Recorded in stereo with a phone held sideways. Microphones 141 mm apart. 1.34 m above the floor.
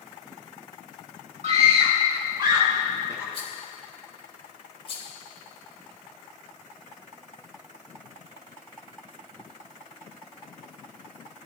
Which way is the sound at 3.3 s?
45° left (ahead or behind).